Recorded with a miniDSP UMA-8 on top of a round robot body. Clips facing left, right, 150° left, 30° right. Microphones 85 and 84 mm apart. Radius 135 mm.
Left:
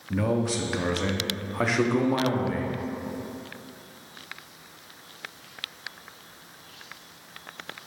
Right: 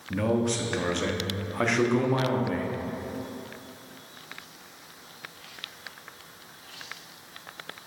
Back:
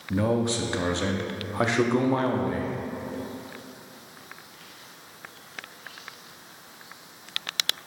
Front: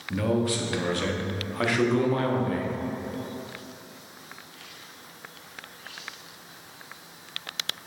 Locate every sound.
0.1 s a man speaking: 170° left, 1.0 m